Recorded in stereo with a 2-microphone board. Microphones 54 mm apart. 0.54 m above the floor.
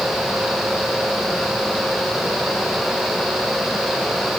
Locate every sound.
Only background noise.